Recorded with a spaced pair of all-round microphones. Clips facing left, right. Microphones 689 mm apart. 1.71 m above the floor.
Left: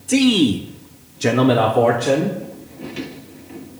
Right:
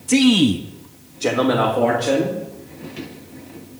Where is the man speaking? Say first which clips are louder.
Even; 35° right (ahead or behind), 0.8 m; by 2.4 s 75° left (ahead or behind), 1.8 m.